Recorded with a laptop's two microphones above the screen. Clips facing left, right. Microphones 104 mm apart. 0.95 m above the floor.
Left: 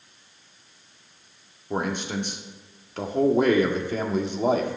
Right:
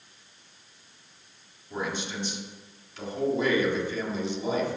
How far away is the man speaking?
About 1.8 m.